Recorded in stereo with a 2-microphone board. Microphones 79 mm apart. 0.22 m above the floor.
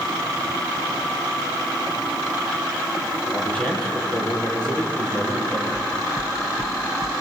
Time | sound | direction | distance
3.3 | a man speaking | 15° left (ahead or behind) | 6 m
5.7 | knocking | 75° left (ahead or behind) | 2.5 m